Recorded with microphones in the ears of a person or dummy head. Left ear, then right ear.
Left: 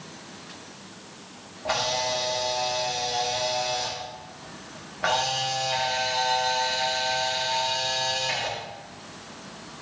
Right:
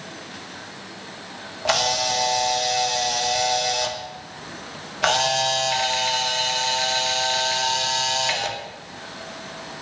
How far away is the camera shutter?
About 1.4 m.